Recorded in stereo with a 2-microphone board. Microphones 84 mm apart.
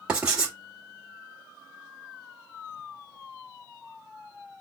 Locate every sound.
0.1 s writing: 10° right (ahead or behind), 1.4 m